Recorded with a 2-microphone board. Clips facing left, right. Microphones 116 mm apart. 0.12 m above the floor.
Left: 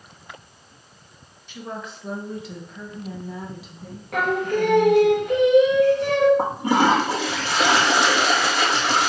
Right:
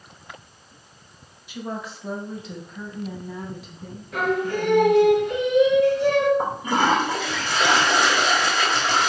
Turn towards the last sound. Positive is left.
turn(degrees=70)  # may be behind; listen again after turning